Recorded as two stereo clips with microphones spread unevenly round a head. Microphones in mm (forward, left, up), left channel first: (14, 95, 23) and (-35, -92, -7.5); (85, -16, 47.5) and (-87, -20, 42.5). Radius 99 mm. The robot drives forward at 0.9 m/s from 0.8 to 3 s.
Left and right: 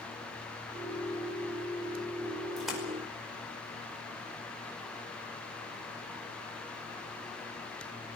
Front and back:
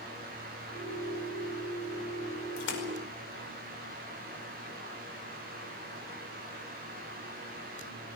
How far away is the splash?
About 5 m.